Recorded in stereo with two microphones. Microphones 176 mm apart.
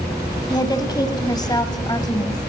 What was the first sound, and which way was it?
A woman speaking, 25° left (ahead or behind).